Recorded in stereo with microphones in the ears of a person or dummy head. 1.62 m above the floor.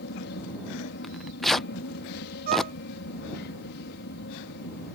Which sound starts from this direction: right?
A violin, at 2.5 s.